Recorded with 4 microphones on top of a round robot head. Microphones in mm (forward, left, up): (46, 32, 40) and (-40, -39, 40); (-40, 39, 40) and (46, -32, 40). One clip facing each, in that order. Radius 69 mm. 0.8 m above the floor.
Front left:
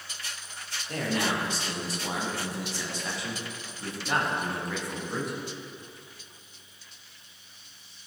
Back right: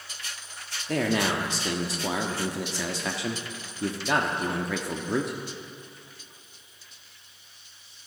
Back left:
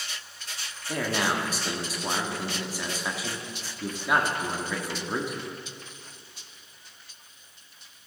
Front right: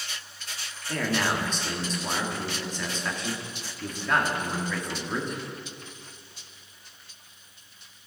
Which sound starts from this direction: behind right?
A man speaking, at 0.9 s.